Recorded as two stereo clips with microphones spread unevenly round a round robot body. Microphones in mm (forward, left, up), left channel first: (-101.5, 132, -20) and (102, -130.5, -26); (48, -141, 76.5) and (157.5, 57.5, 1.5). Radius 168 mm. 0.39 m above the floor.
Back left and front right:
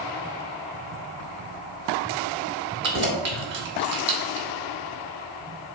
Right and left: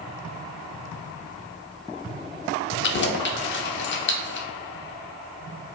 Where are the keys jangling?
80° right, 0.6 m.